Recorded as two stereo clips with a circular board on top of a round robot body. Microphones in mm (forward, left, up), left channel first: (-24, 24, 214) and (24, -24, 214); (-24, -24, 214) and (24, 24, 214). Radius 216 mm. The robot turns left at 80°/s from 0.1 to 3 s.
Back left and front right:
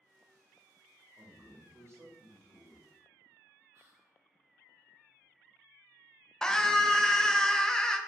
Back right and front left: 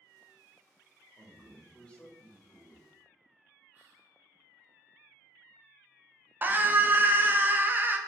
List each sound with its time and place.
1.2 s a man speaking: 5° right, 1.3 m; by 2.9 s 140° right, 1.3 m
3.7 s whispering: 10° right, 1.8 m
6.4 s a scream: 65° left, 0.7 m